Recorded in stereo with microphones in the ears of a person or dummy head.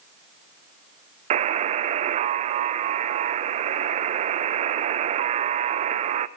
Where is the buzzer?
35° right (ahead or behind), 0.7 m.